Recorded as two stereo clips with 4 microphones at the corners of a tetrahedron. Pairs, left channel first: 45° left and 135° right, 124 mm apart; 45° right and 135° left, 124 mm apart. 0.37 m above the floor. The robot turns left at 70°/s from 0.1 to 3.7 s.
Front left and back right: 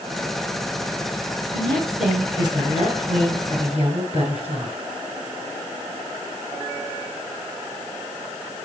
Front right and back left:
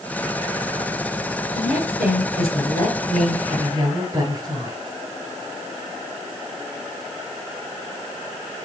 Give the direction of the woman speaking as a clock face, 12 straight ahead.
1 o'clock.